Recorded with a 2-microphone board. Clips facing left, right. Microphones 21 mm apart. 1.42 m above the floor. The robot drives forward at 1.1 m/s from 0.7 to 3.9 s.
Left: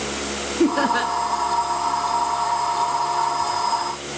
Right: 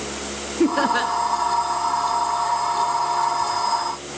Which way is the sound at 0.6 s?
Centre (ahead or behind).